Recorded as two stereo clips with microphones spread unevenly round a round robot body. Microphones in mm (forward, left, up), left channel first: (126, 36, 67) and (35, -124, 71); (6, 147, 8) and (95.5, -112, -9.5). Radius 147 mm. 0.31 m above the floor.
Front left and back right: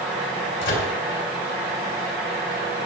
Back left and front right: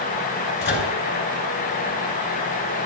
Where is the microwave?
60° left, 4 m.